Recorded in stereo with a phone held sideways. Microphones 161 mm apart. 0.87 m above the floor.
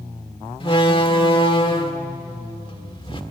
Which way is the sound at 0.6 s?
30° left (ahead or behind).